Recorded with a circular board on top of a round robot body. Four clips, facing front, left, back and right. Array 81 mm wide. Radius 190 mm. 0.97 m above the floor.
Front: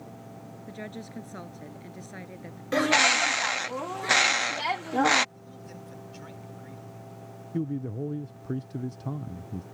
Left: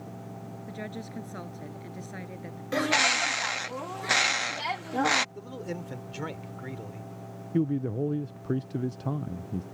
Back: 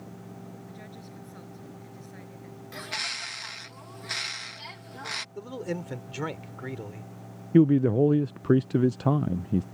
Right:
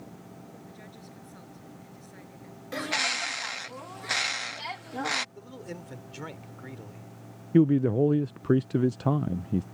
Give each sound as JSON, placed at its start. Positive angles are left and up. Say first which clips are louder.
{"t": 0.7, "sound": "a woman speaking", "louder": "left 9 dB, front 5 dB", "azimuth_deg": 50}
{"t": 2.7, "sound": "a bird", "louder": "left 6 dB, front 16 dB", "azimuth_deg": 20}
{"t": 5.3, "sound": "a man speaking", "louder": "left 5 dB, back 11 dB", "azimuth_deg": 165}
{"t": 7.5, "sound": "a man speaking", "louder": "right 7 dB, back 12 dB", "azimuth_deg": -150}